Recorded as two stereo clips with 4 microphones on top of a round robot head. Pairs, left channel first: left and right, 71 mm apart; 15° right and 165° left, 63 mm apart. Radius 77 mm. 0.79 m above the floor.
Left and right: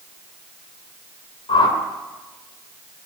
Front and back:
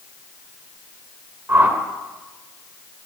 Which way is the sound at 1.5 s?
105° left.